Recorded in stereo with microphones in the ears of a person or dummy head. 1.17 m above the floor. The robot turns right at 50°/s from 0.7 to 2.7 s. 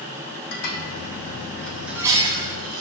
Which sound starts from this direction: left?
Dishes clattering, at 0.5 s.